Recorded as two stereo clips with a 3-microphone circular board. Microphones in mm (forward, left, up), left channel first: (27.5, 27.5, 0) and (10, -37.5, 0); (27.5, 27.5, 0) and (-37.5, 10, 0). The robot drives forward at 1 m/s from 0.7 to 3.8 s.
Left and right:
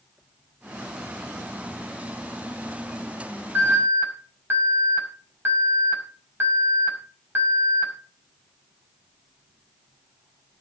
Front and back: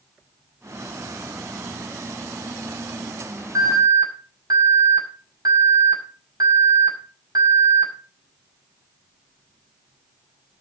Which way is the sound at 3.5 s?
165° right.